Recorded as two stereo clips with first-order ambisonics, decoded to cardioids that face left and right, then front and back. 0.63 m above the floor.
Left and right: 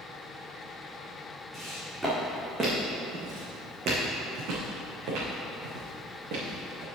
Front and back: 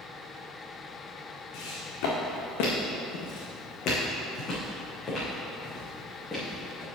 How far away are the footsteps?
About 3 m.